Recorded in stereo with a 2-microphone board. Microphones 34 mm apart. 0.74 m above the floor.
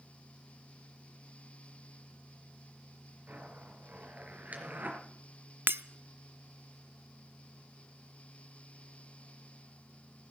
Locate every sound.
3.3 s a zipper: 55° right (ahead or behind), 3.5 m
5.7 s breaking glass: 85° right, 0.6 m